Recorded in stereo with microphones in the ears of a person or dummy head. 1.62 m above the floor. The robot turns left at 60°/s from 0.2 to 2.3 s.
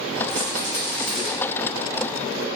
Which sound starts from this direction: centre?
A rattle, at 0.3 s.